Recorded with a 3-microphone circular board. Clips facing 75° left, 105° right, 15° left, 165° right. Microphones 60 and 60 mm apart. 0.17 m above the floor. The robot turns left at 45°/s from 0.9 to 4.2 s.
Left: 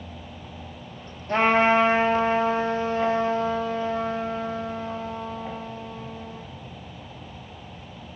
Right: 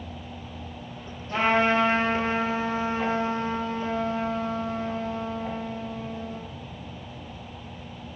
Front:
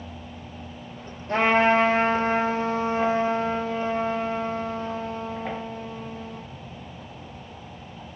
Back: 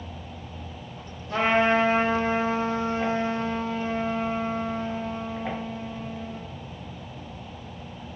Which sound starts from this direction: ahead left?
A trumpet, at 1.3 s.